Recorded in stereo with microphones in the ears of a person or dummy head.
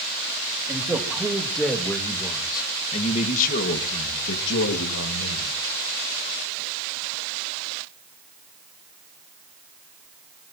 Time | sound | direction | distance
0.7 | a man speaking | 15° right (ahead or behind) | 3 m